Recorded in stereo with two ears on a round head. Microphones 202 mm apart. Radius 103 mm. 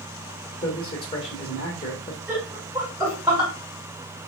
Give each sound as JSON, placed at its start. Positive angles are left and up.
{"t": 0.6, "sound": "a man speaking", "side_deg": 25, "distance_m": 1.4}
{"t": 2.3, "sound": "laughter", "side_deg": -5, "distance_m": 3.0}